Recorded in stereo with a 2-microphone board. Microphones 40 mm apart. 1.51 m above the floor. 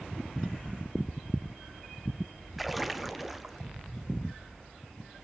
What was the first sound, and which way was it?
A splash, centre (ahead or behind).